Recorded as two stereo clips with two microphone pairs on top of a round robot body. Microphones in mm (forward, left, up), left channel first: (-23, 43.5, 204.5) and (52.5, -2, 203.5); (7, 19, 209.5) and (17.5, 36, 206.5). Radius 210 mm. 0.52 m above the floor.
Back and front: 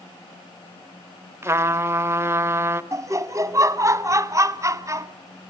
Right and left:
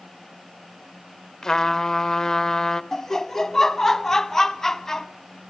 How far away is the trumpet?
About 1.0 m.